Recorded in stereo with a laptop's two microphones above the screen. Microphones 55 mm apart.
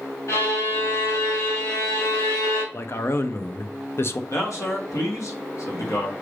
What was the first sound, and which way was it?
A violin, 65° left (ahead or behind).